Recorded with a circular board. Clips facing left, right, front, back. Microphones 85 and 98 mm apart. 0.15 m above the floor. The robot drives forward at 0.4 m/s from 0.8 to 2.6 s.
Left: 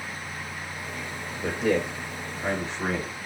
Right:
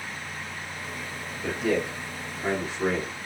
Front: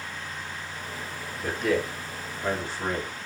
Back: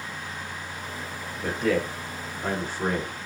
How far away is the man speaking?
About 1.4 m.